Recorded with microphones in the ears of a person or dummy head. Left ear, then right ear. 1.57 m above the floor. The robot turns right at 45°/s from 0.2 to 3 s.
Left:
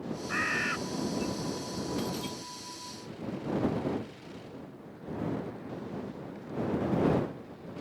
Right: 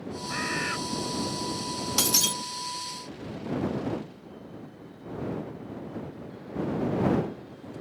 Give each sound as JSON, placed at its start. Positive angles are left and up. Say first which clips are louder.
{"t": 0.3, "sound": "a bird", "louder": "even", "side_deg": 30}
{"t": 2.0, "sound": "breaking glass", "louder": "right 11 dB", "side_deg": -70}